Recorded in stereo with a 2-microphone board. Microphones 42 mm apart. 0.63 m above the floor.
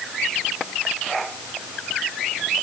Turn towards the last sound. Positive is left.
No sound to turn to.